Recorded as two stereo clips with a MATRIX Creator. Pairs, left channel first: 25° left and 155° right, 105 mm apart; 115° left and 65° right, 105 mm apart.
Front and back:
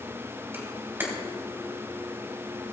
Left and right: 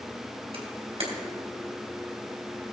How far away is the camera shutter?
About 2.5 m.